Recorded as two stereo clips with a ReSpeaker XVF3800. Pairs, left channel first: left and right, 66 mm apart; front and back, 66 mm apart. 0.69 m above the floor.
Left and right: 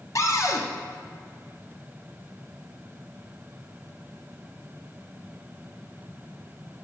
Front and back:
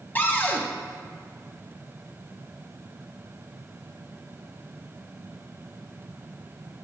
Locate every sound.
0.1 s a cupboard door: 60° left, 0.6 m